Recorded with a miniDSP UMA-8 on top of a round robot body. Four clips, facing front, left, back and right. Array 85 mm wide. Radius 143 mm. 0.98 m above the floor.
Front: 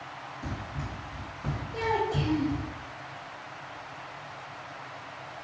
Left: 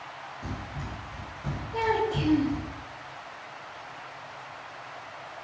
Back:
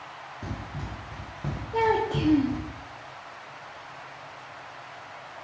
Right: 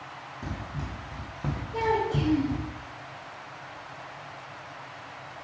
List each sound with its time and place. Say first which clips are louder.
0.4 s running footsteps: right 2 dB, back 1 dB; 140° right, 3 m; by 2.7 s 80° right, 2 m
1.7 s a child speaking: even, back 5 dB; 175° right, 0.8 m